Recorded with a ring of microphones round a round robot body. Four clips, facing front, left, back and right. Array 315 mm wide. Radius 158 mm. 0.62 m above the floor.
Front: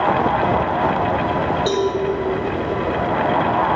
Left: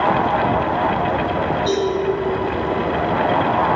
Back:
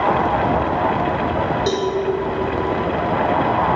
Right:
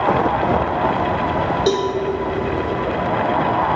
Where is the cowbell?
95° right, 1.6 m.